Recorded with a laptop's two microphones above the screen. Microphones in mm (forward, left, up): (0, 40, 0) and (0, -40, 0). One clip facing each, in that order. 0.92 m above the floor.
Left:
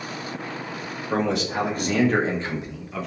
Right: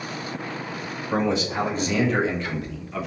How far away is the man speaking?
About 1.1 m.